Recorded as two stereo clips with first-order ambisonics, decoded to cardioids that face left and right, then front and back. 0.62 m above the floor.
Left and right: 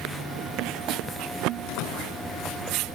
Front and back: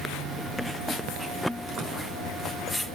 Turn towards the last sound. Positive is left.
turn(degrees=115)